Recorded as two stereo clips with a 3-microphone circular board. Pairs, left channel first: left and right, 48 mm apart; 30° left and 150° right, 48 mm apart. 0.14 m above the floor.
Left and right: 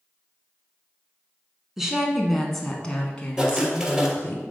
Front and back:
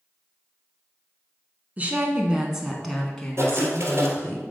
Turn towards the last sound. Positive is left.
turn(degrees=-160)